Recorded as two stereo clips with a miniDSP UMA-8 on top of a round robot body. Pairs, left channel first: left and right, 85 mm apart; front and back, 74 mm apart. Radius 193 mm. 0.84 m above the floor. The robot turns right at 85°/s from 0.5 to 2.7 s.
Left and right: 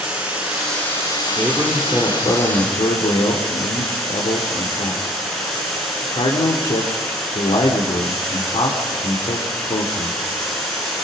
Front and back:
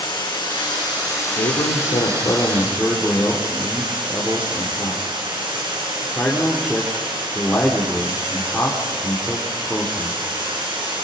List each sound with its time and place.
0.0 s running water: 10° right, 9.5 m; by 11.0 s 175° left, 9.5 m
1.4 s a man speaking: 30° right, 3 m; by 10.2 s 85° left, 3 m